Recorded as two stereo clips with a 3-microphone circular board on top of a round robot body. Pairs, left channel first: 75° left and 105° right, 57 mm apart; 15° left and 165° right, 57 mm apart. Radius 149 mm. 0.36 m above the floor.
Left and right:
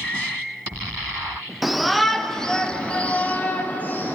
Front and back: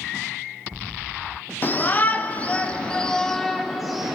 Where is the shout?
20° right, 1.6 m; by 4.2 s 115° left, 1.6 m.